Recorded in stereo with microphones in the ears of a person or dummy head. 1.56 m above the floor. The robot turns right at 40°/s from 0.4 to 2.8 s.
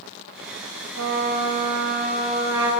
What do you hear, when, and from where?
0.9 s a trumpet: 90° right, 7 m; by 2.7 s 20° right, 7 m